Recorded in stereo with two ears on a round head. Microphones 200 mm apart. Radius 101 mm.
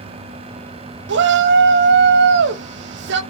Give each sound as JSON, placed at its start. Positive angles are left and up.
{"t": 1.1, "sound": "a shout", "side_deg": -50, "distance_m": 0.5}